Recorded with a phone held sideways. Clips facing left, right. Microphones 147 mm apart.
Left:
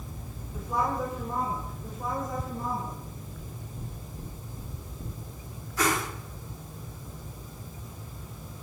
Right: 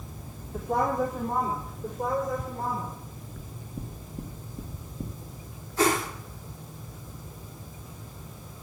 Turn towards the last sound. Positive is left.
turn(degrees=-30)  # may be behind; listen again after turning